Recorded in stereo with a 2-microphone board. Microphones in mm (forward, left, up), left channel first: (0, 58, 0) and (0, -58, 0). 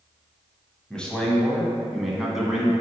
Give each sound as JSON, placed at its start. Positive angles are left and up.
{"t": 0.9, "sound": "a man speaking", "side_deg": 10, "distance_m": 1.2}